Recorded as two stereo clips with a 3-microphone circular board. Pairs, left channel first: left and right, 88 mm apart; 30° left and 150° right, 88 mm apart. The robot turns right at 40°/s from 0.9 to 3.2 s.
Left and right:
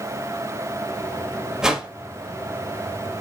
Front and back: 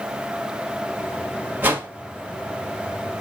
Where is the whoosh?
160° right, 0.8 m; by 1.9 s 150° right, 0.8 m.